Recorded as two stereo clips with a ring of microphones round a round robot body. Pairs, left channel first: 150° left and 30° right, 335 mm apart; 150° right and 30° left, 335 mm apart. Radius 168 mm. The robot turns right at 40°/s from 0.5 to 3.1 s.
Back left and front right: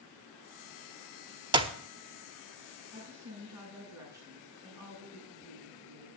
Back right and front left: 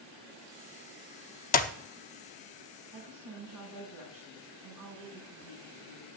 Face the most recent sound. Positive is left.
turn(degrees=50)